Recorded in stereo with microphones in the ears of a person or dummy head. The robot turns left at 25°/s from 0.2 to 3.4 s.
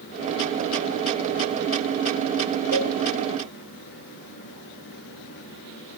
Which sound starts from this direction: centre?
A cowbell, at 2.7 s.